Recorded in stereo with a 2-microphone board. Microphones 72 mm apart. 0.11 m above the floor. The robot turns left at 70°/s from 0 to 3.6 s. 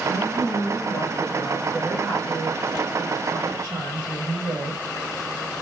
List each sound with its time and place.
0.1 s a woman speaking: 120° left, 7.5 m; by 4.8 s 125° right, 7.5 m